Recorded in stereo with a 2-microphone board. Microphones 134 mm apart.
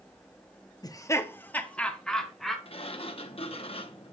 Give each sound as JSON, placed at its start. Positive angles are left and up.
{"t": 0.8, "sound": "laughter", "side_deg": 30, "distance_m": 0.7}
{"t": 2.6, "sound": "a sliding door", "side_deg": 45, "distance_m": 0.8}